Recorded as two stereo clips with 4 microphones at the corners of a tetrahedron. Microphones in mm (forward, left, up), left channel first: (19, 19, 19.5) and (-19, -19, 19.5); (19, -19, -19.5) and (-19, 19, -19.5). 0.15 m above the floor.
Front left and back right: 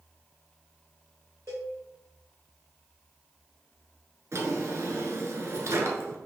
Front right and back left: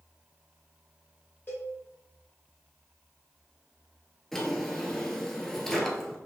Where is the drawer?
130° right, 1.3 m.